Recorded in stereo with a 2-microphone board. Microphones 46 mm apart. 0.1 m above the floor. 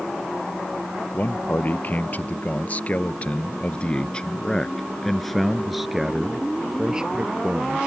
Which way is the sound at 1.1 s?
40° left (ahead or behind).